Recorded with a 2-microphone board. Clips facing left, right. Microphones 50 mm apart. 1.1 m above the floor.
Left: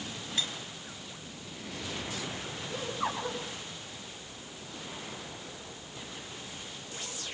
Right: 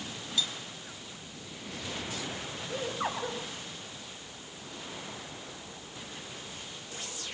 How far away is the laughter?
About 4.5 m.